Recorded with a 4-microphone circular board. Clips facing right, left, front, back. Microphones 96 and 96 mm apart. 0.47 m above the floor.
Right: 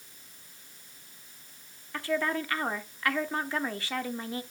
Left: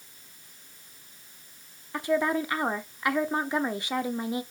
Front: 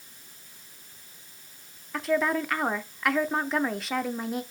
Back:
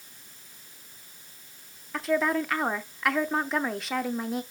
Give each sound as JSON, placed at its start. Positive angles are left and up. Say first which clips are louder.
{"t": 1.9, "sound": "a woman speaking", "louder": "left 4 dB, even", "azimuth_deg": 90, "distance_m": 0.7}